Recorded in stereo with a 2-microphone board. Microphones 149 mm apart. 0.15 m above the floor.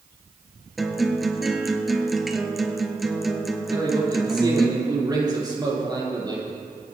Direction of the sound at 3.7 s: 30° right (ahead or behind).